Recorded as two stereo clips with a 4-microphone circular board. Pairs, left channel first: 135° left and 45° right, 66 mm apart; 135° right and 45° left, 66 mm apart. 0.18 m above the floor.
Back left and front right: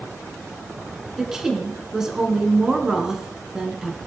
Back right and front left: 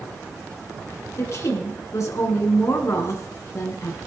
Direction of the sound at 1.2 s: 125° right.